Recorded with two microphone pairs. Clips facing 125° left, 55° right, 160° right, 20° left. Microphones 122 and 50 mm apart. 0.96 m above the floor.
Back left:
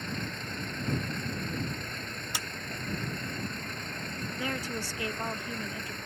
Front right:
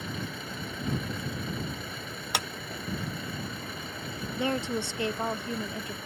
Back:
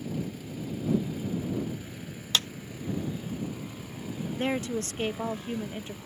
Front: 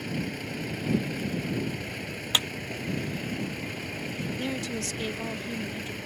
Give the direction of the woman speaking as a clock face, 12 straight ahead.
4 o'clock.